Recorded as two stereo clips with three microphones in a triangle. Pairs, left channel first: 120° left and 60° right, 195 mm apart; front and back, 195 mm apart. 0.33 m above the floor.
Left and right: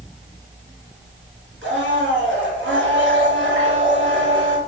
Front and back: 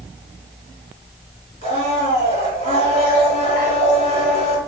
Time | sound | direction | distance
1.6 | a blender | 60° right | 2.5 m